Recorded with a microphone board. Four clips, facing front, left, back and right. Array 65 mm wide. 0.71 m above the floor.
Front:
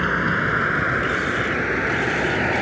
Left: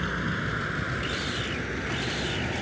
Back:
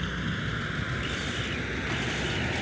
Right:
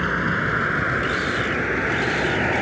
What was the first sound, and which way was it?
A vehicle, 35° right.